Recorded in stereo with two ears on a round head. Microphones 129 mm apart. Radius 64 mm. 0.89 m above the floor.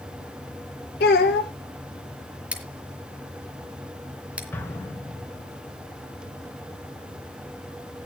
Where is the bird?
I don't hear a bird.